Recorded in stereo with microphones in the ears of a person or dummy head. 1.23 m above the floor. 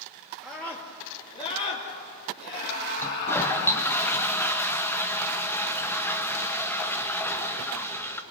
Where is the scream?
5° left (ahead or behind), 2.0 m; by 3.8 s 65° left (ahead or behind), 4.5 m.